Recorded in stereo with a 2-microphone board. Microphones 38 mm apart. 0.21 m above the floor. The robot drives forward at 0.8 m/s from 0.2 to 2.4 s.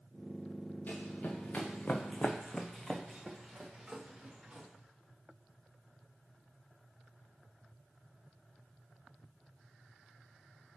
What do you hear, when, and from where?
0.9 s running footsteps: 45° left (ahead or behind), 1.3 m; by 4.7 s 20° right (ahead or behind), 2 m